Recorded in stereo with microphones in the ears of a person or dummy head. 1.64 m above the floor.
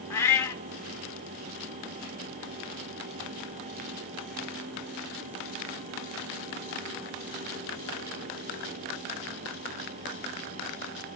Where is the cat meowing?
15° left (ahead or behind), 1.4 m.